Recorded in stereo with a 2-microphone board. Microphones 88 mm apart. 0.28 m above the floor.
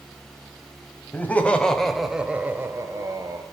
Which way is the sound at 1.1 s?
20° left (ahead or behind).